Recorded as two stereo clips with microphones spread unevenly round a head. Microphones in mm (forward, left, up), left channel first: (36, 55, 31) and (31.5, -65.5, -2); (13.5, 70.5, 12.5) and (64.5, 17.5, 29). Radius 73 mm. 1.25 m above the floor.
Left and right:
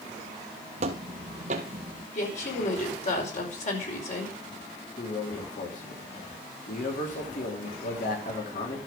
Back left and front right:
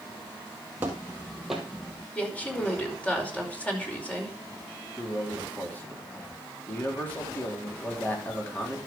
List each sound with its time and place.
0.8 s footsteps: 80° right, 1.5 m; by 2.0 s 140° right, 1.6 m
2.1 s a woman speaking: 60° left, 5 m
5.0 s a man speaking: 70° left, 3.5 m